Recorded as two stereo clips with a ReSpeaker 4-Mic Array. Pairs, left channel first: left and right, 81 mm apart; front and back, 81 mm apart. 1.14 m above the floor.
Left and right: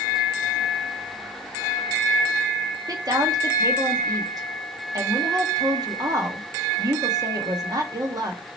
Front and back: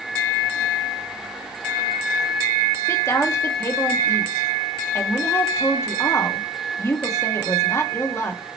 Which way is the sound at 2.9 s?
50° right.